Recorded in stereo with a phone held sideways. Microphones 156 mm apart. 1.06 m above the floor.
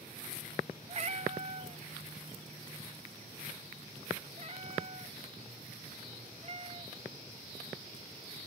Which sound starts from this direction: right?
A cat meowing, at 0.9 s.